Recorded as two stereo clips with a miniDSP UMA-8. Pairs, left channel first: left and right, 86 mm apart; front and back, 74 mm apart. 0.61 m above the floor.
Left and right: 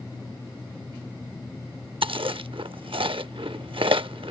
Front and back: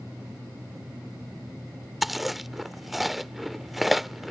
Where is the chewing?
90° right.